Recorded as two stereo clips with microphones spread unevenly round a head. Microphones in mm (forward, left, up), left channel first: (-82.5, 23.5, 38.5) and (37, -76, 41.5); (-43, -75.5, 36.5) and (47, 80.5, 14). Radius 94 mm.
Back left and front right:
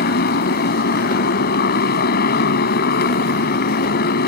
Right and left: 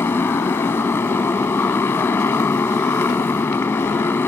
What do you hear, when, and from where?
0.0 s a motorcycle: 165° left